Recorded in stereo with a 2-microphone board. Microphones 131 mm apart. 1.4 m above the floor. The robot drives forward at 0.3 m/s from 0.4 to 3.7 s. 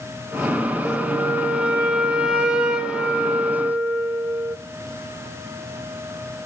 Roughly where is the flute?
Centre.